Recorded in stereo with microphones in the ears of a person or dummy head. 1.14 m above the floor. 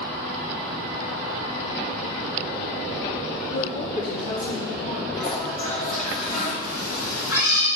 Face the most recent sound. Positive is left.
turn(degrees=60)  # may be behind; listen again after turning